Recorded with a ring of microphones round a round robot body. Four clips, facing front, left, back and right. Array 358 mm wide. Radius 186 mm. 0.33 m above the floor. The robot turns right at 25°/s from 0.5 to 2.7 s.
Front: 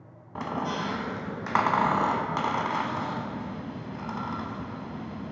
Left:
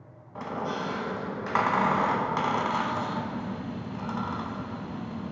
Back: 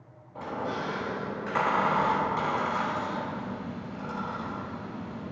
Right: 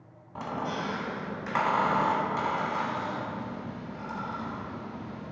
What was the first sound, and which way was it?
A squeak, 5° right.